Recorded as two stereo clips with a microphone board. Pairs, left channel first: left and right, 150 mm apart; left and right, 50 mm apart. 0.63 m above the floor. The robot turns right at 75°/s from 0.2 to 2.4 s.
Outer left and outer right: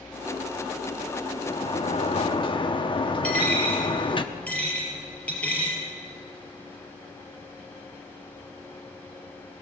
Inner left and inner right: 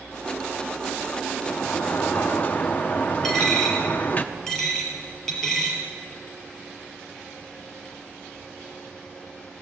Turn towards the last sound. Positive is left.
turn(degrees=10)  # may be behind; listen again after turning